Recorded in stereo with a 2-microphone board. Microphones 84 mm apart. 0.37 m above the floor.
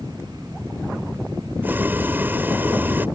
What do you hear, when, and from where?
1.6 s boiling: 25° right (ahead or behind)